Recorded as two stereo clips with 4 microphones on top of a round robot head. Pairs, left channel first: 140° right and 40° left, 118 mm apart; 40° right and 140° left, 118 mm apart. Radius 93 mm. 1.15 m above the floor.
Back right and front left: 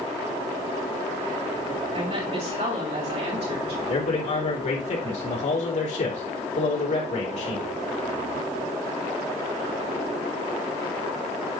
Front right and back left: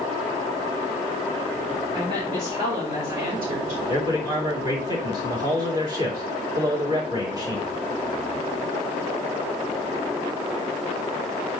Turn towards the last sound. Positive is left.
turn(degrees=-165)